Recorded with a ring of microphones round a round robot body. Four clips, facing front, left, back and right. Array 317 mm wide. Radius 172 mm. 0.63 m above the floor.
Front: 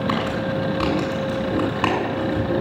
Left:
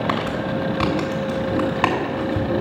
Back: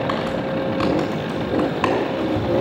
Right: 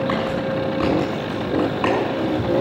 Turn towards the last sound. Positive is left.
turn(degrees=95)